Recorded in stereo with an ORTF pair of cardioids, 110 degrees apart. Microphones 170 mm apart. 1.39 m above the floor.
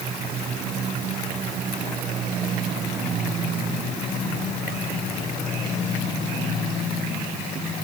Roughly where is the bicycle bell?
I don't hear a bicycle bell.